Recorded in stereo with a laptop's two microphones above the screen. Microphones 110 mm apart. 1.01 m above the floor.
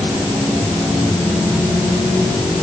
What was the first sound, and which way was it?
Only background noise.